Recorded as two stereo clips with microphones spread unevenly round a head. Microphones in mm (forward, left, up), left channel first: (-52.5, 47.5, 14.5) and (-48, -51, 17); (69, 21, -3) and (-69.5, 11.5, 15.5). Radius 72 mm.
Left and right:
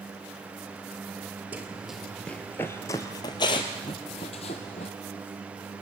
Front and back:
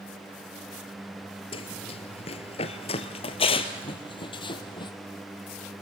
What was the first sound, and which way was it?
Running footsteps, 25° right.